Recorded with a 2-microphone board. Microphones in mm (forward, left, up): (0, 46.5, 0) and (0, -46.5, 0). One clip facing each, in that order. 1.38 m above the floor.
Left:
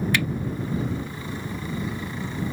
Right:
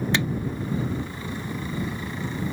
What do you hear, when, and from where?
0.1 s a finger snap: 25° right (ahead or behind)